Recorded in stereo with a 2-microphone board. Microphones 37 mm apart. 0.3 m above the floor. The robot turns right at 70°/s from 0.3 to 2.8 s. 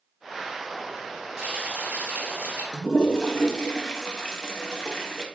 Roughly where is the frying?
Behind right.